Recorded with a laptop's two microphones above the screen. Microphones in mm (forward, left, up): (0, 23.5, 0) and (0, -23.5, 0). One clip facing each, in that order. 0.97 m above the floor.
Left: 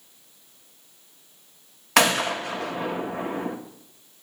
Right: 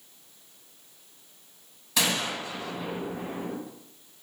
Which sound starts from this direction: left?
A gunshot, at 2.0 s.